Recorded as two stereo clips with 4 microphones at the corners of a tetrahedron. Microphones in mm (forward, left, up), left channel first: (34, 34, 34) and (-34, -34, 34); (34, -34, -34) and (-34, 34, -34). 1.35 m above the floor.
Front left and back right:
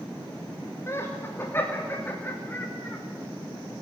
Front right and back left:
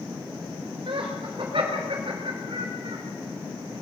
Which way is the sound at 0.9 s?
105° left.